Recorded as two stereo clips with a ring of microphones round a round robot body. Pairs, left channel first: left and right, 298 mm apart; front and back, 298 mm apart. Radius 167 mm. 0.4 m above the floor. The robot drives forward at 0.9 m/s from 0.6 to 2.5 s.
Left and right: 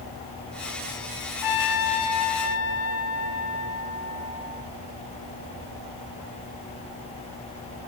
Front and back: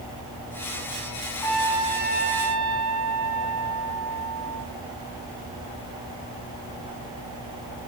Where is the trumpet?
80° left, 0.8 m; by 4.7 s 135° left, 1.2 m.